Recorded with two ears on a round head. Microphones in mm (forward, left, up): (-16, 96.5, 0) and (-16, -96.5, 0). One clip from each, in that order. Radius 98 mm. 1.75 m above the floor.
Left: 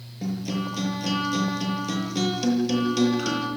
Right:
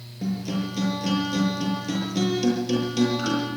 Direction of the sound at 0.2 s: 20° left (ahead or behind).